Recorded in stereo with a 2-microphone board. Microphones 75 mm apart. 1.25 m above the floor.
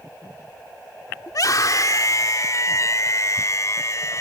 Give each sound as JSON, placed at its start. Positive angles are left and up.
{"t": 1.3, "sound": "a scream", "side_deg": 55}